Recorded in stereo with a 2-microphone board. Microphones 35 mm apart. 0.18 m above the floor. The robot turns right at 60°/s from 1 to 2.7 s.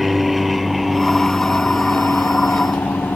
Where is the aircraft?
Centre (ahead or behind); by 3.2 s 70° left (ahead or behind).